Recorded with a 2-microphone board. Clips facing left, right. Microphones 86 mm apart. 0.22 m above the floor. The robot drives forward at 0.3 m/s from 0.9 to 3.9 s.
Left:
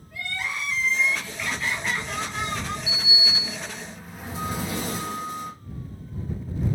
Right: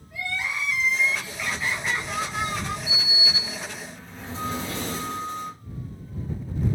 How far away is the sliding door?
About 1.1 m.